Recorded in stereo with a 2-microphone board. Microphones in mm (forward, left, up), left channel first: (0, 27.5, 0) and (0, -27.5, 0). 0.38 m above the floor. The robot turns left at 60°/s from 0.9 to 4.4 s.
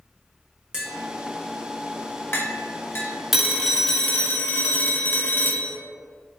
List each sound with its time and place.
0.7 s tapping: 15° right (ahead or behind), 0.9 m; by 3.1 s 40° left (ahead or behind), 0.9 m
3.3 s a phone ringing: 175° right, 0.5 m; by 5.8 s 120° left, 0.5 m